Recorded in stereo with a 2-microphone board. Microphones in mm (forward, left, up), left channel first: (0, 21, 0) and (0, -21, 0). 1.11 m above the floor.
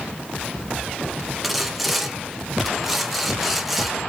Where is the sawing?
Centre (ahead or behind), 0.7 m.